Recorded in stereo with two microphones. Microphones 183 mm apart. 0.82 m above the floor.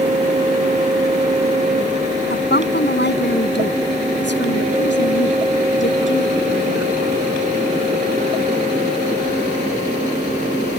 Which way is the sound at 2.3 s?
70° left (ahead or behind).